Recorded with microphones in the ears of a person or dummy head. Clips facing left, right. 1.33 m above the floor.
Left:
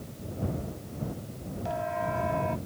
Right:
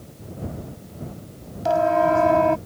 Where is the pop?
No pop in this recording.